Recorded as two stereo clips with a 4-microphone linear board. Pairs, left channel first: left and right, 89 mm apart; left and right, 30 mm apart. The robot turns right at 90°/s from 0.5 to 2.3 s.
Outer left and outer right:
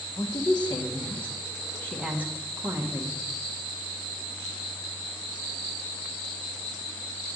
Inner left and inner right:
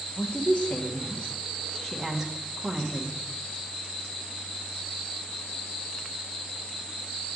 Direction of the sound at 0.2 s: 45° left (ahead or behind).